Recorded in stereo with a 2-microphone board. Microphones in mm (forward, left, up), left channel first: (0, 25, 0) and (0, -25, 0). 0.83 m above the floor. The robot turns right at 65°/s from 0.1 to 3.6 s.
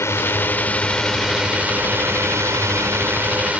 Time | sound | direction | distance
0.0 | a drone | 110° left | ?